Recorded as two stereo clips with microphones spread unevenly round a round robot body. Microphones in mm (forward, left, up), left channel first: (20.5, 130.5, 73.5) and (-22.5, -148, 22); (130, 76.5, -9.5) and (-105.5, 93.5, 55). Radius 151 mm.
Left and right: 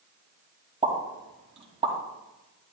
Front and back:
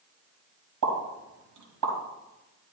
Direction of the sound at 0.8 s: 170° right.